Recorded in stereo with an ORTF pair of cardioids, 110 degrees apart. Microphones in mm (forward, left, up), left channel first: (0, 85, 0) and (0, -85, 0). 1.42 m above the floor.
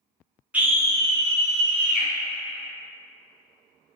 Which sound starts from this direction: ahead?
A scream, at 0.5 s.